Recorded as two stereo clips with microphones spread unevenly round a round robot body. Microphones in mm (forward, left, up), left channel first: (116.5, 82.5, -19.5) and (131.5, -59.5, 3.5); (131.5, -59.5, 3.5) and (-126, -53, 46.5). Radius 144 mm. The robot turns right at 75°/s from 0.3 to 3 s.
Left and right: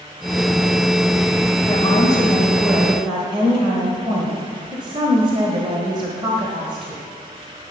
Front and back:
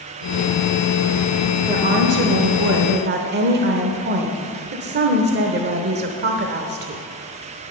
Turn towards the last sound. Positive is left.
turn(degrees=-145)